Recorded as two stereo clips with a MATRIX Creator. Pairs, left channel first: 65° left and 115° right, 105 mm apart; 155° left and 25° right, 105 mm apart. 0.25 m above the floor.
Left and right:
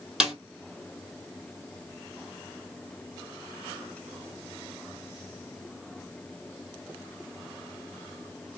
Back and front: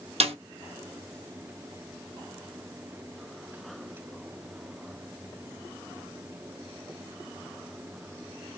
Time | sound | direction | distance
0.2 | a snare drum | 30° right | 1.2 m